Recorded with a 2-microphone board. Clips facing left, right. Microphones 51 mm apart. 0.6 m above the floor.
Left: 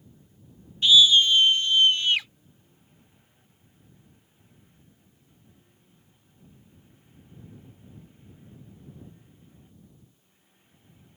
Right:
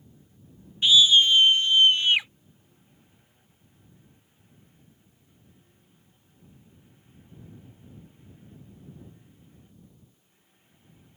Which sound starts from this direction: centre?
A scream, at 0.8 s.